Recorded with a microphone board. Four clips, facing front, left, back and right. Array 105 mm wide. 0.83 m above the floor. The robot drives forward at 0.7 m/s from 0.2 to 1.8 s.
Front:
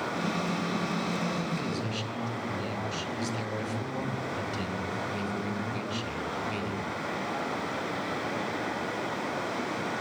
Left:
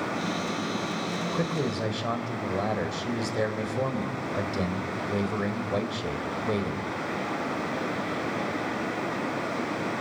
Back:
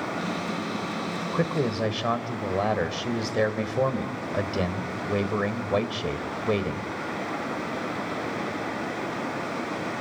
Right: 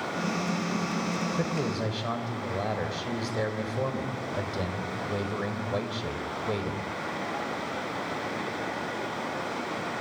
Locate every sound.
1.3 s a man speaking: 170° left, 3 m; by 6.9 s 175° left, 3 m